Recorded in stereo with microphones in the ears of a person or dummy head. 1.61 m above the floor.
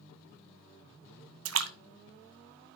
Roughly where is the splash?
Right.